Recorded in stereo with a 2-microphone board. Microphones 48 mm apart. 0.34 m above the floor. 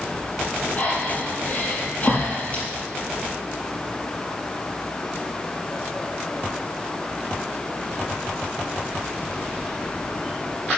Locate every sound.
0.8 s breathing: 25° left (ahead or behind), 5 m